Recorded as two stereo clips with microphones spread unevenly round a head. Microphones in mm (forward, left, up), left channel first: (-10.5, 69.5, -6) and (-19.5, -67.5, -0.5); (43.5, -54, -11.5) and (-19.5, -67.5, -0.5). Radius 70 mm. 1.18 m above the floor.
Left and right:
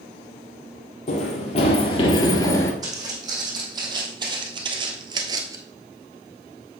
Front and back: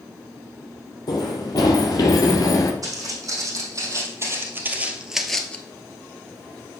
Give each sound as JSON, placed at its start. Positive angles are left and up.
{"t": 1.1, "sound": "running footsteps", "azimuth_deg": 55, "distance_m": 2.0}
{"t": 2.8, "sound": "footsteps", "azimuth_deg": -155, "distance_m": 3.5}